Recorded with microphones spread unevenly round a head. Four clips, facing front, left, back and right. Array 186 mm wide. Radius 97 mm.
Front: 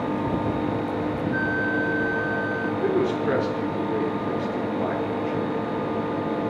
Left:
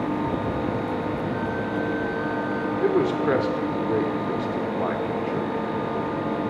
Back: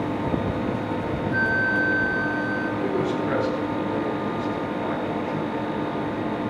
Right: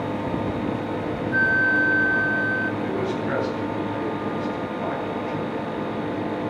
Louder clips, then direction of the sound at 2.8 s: Left 4 dB, front 3 dB; 70° left.